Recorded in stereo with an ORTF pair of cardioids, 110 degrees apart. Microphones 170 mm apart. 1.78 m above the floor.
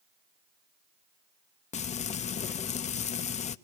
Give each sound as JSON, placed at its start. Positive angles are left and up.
{"t": 1.7, "sound": "frying", "azimuth_deg": 40, "distance_m": 0.9}